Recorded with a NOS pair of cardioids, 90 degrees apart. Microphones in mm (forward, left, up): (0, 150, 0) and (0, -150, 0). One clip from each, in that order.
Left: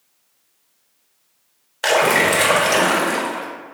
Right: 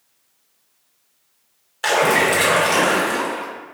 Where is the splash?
15° left, 0.8 m.